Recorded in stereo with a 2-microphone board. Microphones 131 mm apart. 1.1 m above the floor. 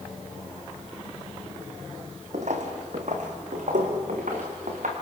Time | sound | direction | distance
2.3 | footsteps | 65° right (ahead or behind) | 2.5 m